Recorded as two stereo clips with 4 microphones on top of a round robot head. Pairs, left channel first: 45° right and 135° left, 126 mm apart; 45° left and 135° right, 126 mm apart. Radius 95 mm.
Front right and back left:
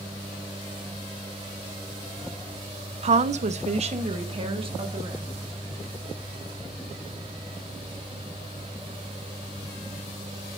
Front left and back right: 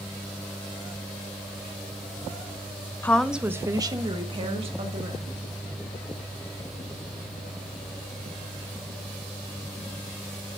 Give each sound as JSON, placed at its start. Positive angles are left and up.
{"t": 3.0, "sound": "a woman speaking", "azimuth_deg": 115, "distance_m": 0.7}